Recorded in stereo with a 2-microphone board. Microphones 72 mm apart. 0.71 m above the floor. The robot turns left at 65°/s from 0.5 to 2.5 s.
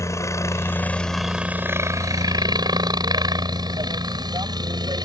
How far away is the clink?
I don't hear a clink.